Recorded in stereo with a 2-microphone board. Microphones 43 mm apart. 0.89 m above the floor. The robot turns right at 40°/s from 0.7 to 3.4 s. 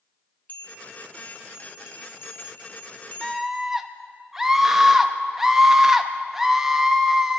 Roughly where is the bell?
Ahead left.